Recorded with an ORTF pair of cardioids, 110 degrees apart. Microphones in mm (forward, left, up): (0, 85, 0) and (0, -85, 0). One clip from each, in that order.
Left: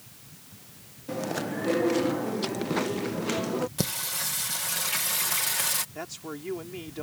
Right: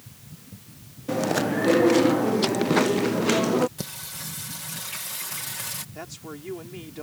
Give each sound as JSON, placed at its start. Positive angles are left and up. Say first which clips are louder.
{"t": 1.1, "sound": "chewing", "louder": "right 7 dB", "azimuth_deg": -35}
{"t": 3.8, "sound": "singing", "louder": "left 6 dB", "azimuth_deg": 35}
{"t": 6.0, "sound": "a man speaking", "louder": "left 1 dB", "azimuth_deg": 10}